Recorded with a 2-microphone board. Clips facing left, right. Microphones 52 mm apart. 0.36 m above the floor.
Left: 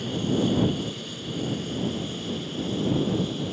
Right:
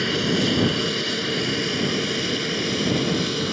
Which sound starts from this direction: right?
An aircraft, at 0.0 s.